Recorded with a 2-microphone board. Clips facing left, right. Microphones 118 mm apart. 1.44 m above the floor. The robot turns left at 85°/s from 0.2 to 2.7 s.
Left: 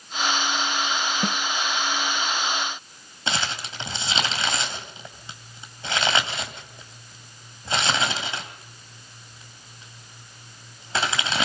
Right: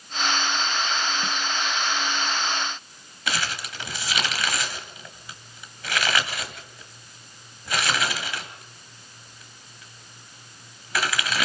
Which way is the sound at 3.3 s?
25° left (ahead or behind).